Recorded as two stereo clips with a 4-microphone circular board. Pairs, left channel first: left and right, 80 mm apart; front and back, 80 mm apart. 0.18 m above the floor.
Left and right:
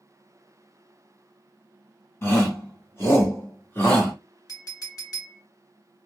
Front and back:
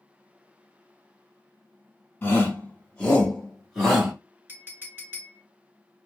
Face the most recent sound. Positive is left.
turn(degrees=120)